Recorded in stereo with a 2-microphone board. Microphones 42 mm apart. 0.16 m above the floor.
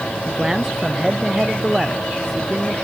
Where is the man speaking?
15° right (ahead or behind); by 2.7 s 10° right (ahead or behind).